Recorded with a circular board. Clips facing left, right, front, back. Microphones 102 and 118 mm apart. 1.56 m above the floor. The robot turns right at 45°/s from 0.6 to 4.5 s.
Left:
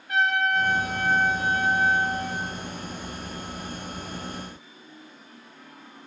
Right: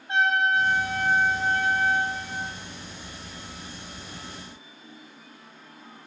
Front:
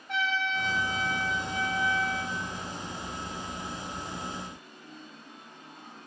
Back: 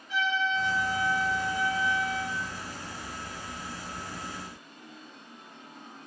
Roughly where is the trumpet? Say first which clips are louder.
Right 1 dB, back 2 dB; ahead right.